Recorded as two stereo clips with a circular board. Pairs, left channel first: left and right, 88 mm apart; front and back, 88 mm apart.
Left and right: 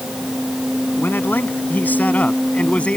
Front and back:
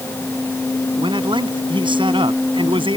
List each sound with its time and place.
1.0 s a man speaking: 155° left; by 3.0 s 165° left